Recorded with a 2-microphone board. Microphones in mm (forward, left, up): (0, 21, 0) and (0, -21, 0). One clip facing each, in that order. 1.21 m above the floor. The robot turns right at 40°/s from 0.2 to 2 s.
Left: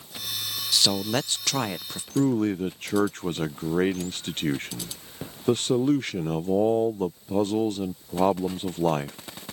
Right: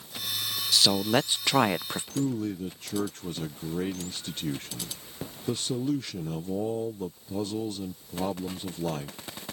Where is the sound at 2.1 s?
50° left (ahead or behind).